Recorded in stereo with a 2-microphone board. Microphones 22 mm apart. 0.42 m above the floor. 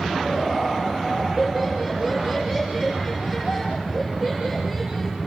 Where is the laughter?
15° right (ahead or behind), 8.5 m.